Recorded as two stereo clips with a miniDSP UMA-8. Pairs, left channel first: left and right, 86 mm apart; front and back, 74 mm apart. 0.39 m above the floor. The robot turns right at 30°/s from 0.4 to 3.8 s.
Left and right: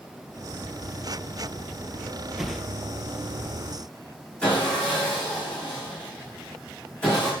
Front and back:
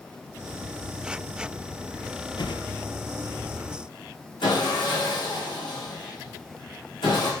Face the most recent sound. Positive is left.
turn(degrees=10)